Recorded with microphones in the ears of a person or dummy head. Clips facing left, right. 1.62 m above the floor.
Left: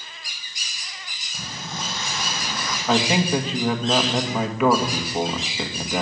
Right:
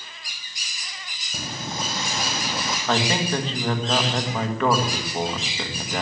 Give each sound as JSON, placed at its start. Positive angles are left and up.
{"t": 1.3, "sound": "footsteps", "side_deg": -45, "distance_m": 4.0}
{"t": 2.9, "sound": "a man speaking", "side_deg": 10, "distance_m": 1.9}